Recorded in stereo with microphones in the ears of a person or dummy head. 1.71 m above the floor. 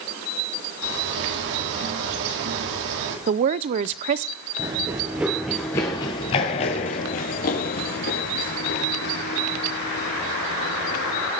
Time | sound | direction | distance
0.8 | a bird | 65° right (ahead or behind) | 4.5 m
3.3 | a woman speaking | 35° right (ahead or behind) | 0.7 m
4.6 | running footsteps | 15° right (ahead or behind) | 1.8 m